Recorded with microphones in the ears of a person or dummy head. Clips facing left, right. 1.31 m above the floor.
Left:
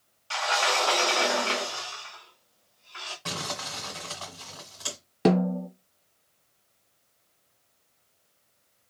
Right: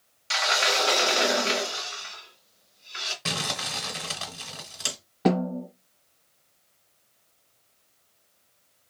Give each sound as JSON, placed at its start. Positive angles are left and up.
{"t": 0.3, "sound": "a sliding door", "side_deg": -25, "distance_m": 0.8}
{"t": 3.2, "sound": "crumpling", "side_deg": -30, "distance_m": 1.6}
{"t": 5.2, "sound": "a snare drum", "side_deg": 40, "distance_m": 1.4}